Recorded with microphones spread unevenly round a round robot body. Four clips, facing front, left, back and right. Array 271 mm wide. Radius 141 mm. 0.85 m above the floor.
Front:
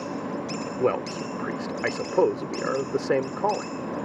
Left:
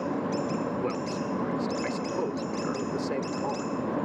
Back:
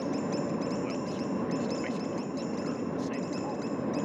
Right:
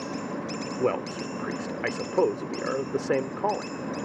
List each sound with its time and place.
0.8 s a man speaking: 30° right